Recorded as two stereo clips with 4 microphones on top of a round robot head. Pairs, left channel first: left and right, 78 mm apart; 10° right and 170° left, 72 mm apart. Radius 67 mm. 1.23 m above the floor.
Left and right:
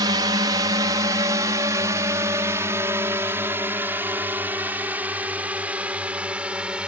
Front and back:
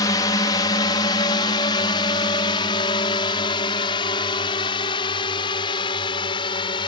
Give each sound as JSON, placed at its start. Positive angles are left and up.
{"t": 0.0, "sound": "a drone", "azimuth_deg": -50}